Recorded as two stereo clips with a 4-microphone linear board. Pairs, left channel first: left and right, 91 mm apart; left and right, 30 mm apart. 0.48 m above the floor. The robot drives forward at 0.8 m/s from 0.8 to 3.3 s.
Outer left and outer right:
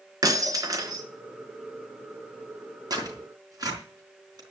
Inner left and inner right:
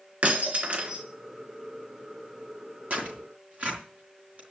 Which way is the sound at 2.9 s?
45° right (ahead or behind).